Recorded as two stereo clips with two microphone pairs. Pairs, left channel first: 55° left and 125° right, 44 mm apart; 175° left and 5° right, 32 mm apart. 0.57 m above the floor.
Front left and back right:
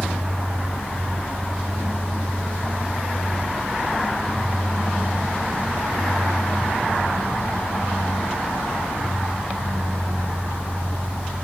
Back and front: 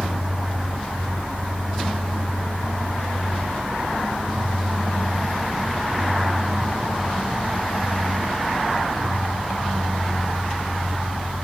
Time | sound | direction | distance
0.0 | an engine running | 90° right | 9 m